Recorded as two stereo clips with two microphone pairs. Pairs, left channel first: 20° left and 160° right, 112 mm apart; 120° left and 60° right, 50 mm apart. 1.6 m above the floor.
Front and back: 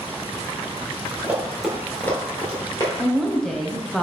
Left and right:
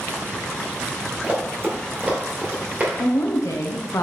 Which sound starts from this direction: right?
Running footsteps, at 1.2 s.